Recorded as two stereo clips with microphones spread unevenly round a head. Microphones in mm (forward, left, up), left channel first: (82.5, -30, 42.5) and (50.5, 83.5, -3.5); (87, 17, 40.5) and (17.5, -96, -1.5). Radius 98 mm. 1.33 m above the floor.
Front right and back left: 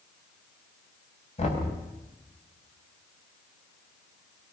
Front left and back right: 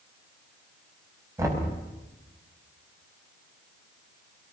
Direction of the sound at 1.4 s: 50° right.